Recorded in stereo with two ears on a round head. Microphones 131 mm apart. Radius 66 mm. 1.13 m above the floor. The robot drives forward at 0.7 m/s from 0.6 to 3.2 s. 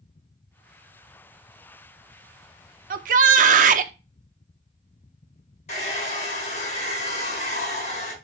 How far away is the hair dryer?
About 4 m.